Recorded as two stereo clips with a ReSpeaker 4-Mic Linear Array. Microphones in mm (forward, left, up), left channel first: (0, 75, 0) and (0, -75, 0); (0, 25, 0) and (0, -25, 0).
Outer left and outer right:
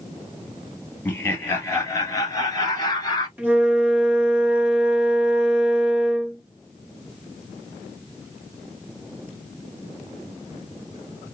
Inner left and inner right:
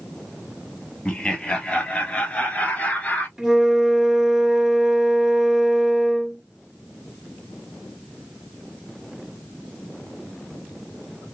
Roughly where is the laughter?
Centre.